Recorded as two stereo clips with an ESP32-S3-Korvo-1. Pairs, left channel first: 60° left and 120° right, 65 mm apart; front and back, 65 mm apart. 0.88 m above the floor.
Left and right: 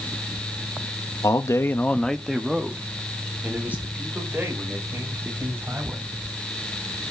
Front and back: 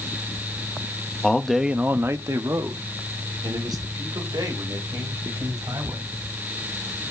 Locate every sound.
1.2 s a man speaking: 70° left, 1.0 m; by 6.2 s 175° right, 5.5 m